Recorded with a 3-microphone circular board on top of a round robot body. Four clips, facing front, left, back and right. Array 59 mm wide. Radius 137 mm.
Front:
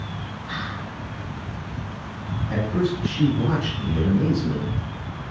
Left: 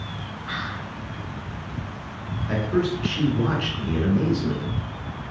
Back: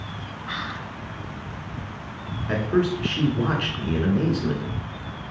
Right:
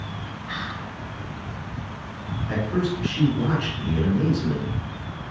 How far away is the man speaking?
About 2.5 m.